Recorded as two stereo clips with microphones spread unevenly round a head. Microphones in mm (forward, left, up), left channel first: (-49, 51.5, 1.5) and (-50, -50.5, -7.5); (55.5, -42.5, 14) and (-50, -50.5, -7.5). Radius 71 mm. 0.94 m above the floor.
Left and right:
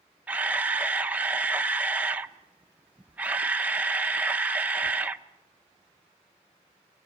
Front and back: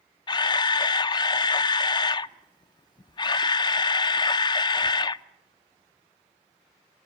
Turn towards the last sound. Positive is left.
turn(degrees=-30)